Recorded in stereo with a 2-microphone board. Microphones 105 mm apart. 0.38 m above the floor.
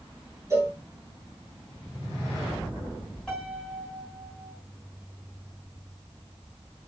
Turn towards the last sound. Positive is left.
turn(degrees=10)  # may be behind; listen again after turning